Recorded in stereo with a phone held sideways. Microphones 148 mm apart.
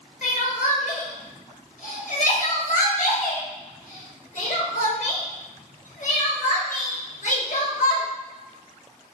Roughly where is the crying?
Left.